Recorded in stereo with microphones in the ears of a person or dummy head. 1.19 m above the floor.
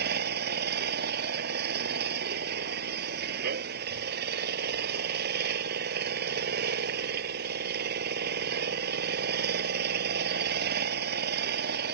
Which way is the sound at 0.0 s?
65° right (ahead or behind).